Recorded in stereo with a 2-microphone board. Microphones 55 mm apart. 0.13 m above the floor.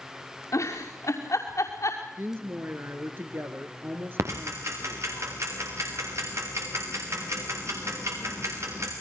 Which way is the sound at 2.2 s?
45° right (ahead or behind).